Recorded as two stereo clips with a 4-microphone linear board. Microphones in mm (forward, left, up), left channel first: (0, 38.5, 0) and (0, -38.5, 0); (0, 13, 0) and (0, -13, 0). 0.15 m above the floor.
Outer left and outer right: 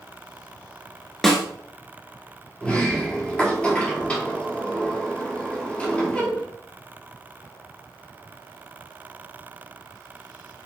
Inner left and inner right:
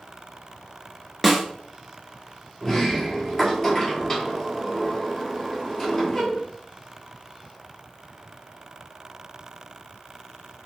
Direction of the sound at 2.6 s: 15° left (ahead or behind).